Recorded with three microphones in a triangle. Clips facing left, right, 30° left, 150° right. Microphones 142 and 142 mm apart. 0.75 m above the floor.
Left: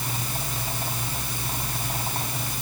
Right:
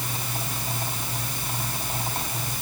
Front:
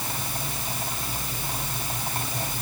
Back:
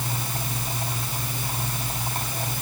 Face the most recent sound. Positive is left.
No sound to turn to.